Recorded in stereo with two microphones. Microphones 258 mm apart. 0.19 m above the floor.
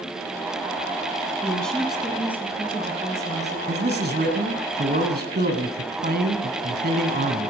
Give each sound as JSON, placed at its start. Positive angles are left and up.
{"t": 1.4, "sound": "a woman speaking", "side_deg": 5, "distance_m": 1.2}
{"t": 3.7, "sound": "a man speaking", "side_deg": -40, "distance_m": 1.5}